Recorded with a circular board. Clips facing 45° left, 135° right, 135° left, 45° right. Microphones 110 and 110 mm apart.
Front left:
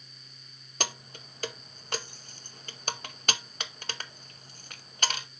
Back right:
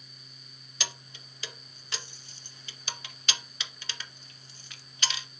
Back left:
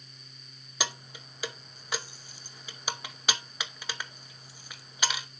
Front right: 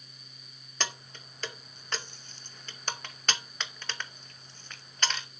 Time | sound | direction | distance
0.8 | keys jangling | 60° left | 0.6 m